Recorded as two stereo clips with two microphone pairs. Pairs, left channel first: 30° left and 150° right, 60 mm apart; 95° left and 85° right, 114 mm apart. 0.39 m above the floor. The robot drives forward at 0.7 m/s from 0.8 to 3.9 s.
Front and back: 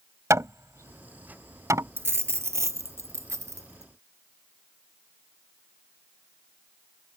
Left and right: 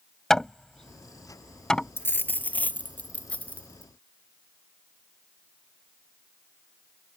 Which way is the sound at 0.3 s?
Straight behind.